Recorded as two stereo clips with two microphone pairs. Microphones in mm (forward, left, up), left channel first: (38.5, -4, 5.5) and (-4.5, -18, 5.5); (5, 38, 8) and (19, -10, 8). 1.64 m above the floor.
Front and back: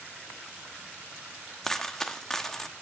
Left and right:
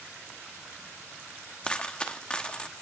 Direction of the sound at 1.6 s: 85° left.